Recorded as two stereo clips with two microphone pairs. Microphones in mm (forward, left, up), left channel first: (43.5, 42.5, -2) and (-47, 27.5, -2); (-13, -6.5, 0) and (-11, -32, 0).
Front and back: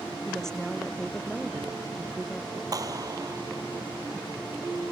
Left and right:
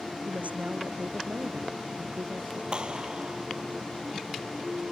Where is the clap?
130° right.